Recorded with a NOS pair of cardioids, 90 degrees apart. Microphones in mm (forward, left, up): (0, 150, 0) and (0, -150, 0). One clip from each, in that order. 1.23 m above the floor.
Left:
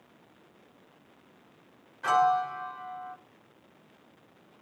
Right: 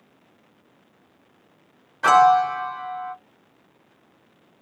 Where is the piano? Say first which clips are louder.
Right 10 dB; 60° right, 0.6 m.